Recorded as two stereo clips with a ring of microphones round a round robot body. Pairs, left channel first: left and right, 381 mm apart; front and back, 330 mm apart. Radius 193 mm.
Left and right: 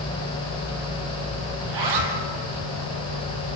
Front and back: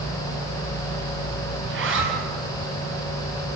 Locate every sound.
1.6 s a zipper: 120° right, 3 m